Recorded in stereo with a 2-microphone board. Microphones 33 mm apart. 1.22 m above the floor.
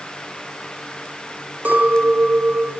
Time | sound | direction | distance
1.6 | a clink | 75° right (ahead or behind) | 1.1 m